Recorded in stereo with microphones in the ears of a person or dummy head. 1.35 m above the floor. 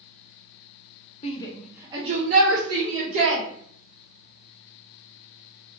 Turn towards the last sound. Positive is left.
turn(degrees=-60)  # may be behind; listen again after turning